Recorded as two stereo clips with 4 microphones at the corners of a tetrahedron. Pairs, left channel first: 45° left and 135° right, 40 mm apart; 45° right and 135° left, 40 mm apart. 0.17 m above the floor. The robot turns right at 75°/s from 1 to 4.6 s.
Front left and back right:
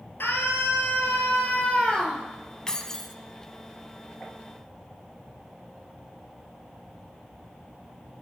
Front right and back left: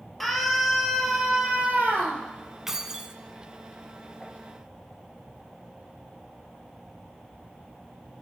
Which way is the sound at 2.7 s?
75° left.